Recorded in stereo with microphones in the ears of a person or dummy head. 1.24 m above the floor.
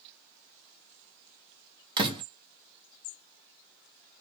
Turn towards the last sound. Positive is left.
turn(degrees=-25)  # may be behind; listen again after turning